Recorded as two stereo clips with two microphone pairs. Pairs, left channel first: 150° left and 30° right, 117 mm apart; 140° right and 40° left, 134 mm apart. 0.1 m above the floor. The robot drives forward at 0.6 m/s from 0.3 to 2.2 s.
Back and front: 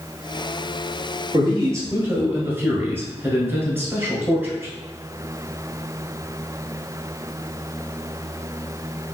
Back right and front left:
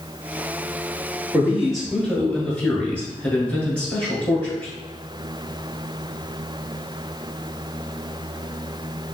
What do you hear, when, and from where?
1.3 s a man speaking: 40° right, 1.6 m; by 4.7 s 70° right, 1.5 m